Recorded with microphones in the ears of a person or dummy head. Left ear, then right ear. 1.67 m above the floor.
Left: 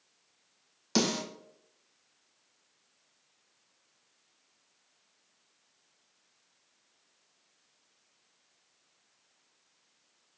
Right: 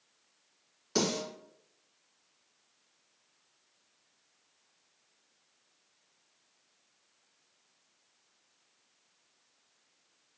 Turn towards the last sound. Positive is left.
turn(degrees=65)  # may be behind; listen again after turning